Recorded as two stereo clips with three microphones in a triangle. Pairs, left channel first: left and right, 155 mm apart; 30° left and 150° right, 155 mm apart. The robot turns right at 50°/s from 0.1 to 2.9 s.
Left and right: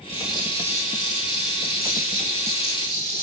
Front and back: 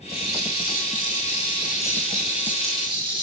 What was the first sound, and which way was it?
A rattle, 15° left.